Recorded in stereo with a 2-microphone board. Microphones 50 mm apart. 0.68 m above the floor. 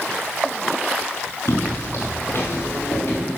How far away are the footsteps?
About 5.5 m.